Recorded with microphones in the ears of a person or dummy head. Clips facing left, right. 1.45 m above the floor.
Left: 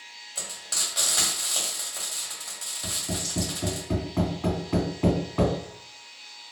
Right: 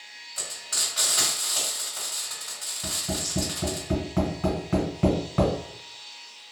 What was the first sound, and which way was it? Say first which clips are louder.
Frying: even; 30° left (ahead or behind).